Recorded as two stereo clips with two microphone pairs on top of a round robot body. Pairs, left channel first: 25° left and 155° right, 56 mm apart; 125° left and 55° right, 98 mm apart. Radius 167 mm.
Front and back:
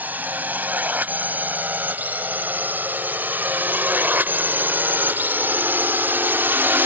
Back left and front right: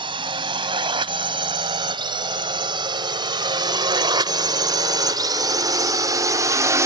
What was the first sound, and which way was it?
A drone, 90° right.